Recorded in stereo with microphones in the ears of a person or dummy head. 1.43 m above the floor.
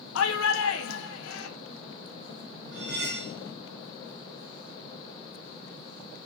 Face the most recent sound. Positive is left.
turn(degrees=-70)  # may be behind; listen again after turning